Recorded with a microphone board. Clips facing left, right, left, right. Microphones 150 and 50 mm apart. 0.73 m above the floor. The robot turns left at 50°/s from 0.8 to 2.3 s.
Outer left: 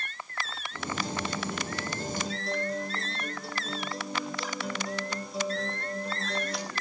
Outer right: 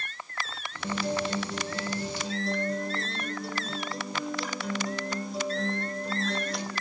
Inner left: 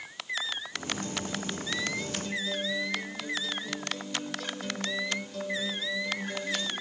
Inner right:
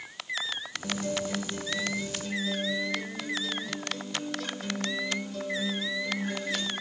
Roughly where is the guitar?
Right.